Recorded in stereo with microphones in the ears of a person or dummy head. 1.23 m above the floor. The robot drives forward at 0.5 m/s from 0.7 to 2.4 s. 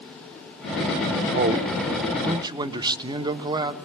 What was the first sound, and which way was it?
A man speaking, 35° right (ahead or behind).